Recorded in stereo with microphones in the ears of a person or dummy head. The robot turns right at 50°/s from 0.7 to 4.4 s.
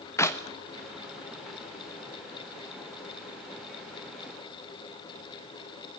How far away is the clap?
About 1.2 m.